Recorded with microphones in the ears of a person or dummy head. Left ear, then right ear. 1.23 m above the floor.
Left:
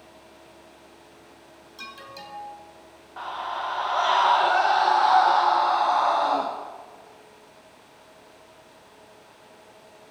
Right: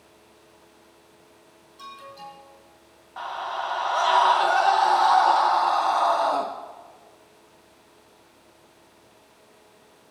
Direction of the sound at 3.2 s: 25° right (ahead or behind).